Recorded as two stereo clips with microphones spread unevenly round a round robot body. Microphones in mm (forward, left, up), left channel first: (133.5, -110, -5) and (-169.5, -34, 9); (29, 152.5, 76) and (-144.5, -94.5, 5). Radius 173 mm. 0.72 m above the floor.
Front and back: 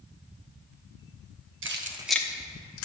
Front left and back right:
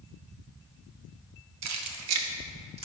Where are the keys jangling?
145° right, 1.2 m; by 2.9 s 55° right, 1.5 m.